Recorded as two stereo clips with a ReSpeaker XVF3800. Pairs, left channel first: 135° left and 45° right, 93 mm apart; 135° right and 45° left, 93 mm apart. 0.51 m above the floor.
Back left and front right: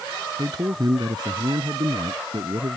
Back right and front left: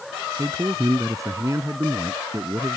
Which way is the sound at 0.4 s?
5° right.